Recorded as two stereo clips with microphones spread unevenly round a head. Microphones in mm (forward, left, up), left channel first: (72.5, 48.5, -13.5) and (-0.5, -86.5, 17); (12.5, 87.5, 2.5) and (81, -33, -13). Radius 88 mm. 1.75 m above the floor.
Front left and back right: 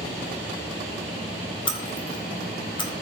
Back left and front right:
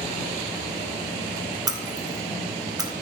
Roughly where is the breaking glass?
Ahead.